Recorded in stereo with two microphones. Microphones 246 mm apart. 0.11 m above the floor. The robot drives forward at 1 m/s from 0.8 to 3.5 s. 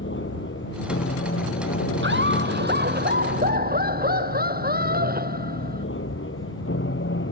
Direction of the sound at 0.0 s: 50° left (ahead or behind).